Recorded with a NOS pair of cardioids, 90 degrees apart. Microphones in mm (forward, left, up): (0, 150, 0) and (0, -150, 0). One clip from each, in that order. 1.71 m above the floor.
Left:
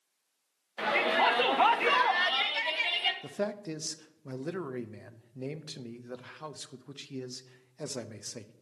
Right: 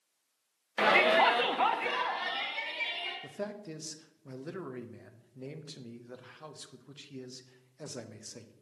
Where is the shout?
35° right, 0.7 m; by 3.1 s 55° left, 1.8 m.